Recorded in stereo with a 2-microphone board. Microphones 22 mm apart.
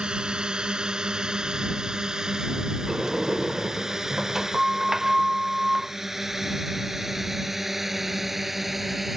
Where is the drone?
40° right (ahead or behind); by 9.2 s 5° right (ahead or behind).